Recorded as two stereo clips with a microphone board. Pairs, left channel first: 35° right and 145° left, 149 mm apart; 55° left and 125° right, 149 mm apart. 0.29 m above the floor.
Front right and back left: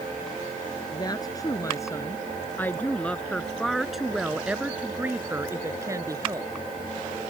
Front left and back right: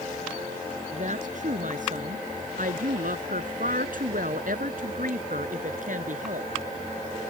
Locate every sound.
0.9 s a woman speaking: 95° right; by 6.5 s 150° right